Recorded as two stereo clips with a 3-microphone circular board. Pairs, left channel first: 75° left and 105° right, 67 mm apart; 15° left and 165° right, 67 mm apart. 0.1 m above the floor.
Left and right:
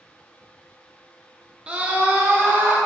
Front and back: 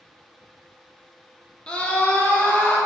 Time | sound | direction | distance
1.7 | a scream | 45° right | 1.4 m